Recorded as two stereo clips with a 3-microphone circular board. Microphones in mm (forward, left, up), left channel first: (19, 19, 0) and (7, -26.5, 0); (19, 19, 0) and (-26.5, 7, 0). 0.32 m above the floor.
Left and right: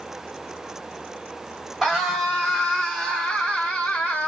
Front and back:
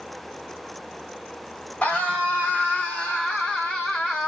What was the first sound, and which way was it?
A scream, 25° right.